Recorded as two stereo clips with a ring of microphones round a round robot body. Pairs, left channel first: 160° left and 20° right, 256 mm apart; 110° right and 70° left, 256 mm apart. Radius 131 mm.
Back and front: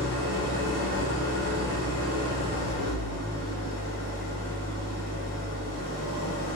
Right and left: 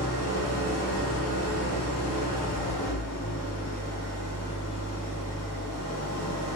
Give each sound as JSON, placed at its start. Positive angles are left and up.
{"t": 0.0, "sound": "an engine running", "azimuth_deg": -125, "distance_m": 1.9}